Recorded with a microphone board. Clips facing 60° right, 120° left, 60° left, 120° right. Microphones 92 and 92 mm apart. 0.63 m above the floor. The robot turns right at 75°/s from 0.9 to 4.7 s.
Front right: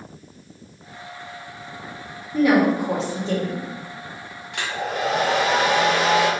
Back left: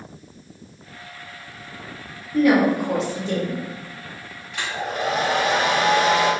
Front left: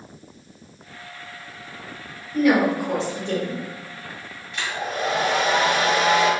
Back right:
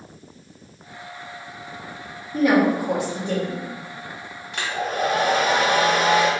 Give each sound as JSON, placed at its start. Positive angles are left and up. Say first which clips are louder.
{"t": 2.3, "sound": "a woman speaking", "louder": "even, back right 1 dB", "azimuth_deg": -115, "distance_m": 1.0}
{"t": 4.5, "sound": "a hair dryer", "louder": "front right 1 dB, back right 2 dB", "azimuth_deg": -90, "distance_m": 0.8}